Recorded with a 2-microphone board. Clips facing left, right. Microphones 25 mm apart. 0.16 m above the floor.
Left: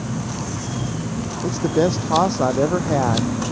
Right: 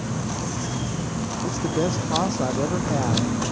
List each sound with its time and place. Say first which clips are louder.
1.4 s a man speaking: left 6 dB; 25° left (ahead or behind)